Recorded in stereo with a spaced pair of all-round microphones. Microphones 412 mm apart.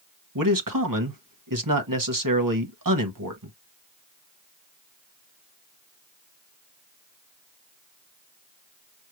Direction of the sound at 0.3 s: 50° right (ahead or behind).